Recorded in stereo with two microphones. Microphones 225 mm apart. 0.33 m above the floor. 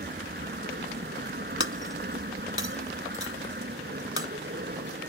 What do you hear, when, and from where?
0.0 s an aircraft: 45° right (ahead or behind)
1.6 s breaking glass: 65° left (ahead or behind)